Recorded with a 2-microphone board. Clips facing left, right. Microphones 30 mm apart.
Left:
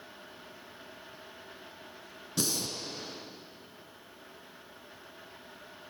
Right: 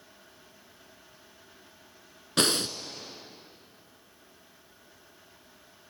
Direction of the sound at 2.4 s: 65° right (ahead or behind).